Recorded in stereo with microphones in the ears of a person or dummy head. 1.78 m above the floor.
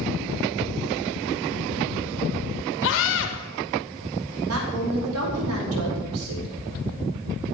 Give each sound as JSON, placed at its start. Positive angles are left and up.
{"t": 2.8, "sound": "a scream", "side_deg": 70, "distance_m": 3.0}
{"t": 4.5, "sound": "a woman speaking", "side_deg": -85, "distance_m": 5.0}